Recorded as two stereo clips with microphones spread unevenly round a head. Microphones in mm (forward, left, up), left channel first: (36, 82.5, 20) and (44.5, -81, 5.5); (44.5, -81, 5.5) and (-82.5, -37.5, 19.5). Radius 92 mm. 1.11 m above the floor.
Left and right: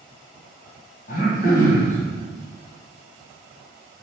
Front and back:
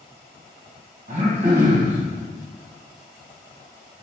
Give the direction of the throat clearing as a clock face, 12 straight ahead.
8 o'clock.